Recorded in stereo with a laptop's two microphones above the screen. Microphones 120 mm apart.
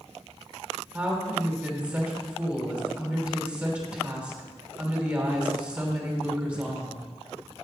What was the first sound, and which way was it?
A woman speaking, 10° right (ahead or behind).